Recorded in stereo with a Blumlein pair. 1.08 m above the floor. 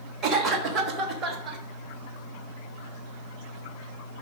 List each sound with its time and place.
0.2 s a cough: 30° right, 1.3 m